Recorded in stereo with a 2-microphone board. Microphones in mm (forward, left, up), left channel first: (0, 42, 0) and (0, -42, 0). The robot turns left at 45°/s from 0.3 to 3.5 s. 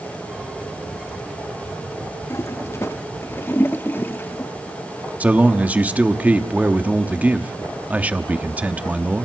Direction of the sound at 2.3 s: 35° left (ahead or behind).